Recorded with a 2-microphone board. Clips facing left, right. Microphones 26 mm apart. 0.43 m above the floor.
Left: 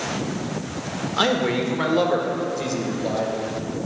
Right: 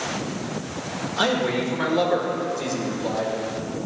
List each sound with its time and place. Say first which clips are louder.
1.2 s a man speaking: left 1 dB; 25° left (ahead or behind), 1.1 m; by 3.3 s 10° left (ahead or behind), 1.9 m